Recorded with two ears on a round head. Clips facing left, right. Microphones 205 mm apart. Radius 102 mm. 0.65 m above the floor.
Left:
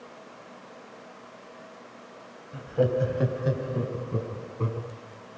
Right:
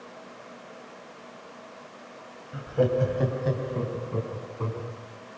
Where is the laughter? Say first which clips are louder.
Right 1 dB; 5° right (ahead or behind), 3 m; by 4.9 s 25° left (ahead or behind), 5 m.